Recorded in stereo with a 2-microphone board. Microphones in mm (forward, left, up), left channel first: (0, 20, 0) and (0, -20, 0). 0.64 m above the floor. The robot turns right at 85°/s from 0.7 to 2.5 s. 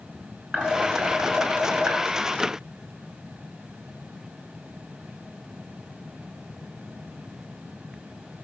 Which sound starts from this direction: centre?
Dishes clattering, at 0.5 s.